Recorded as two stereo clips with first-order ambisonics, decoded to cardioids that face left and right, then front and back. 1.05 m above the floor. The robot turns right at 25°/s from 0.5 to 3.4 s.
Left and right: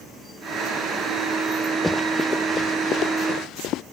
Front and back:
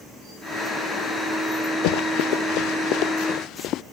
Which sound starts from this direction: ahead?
Running footsteps, at 1.8 s.